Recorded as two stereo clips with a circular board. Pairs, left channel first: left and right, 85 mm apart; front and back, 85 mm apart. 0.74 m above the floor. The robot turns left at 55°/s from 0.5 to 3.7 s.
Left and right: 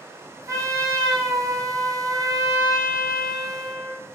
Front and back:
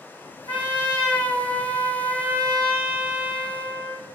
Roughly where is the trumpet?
Ahead right.